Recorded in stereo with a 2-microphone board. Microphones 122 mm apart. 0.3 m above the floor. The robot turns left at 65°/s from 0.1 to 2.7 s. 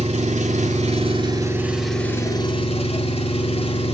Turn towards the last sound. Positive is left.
turn(degrees=125)